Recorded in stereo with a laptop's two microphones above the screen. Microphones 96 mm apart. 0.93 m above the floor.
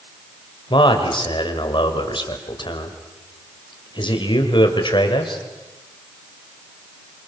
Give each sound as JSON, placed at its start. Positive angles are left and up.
{"t": 0.7, "sound": "a man speaking", "side_deg": 55, "distance_m": 4.5}